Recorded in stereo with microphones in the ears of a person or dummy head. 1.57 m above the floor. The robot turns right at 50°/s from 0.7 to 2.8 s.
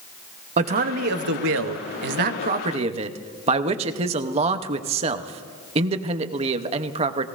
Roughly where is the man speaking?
Behind right.